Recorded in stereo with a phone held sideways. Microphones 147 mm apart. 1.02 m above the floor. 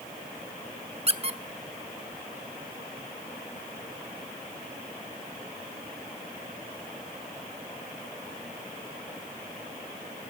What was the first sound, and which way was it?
A squeak, 40° right (ahead or behind).